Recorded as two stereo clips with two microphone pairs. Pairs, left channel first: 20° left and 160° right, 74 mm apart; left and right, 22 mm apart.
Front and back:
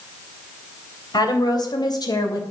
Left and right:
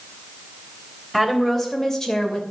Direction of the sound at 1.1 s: 10° left.